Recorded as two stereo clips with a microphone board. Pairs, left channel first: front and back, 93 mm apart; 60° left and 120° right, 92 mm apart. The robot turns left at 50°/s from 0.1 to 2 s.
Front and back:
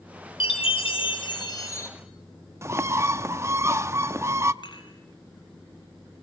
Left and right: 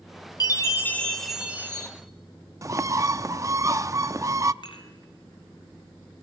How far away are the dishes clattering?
About 4 m.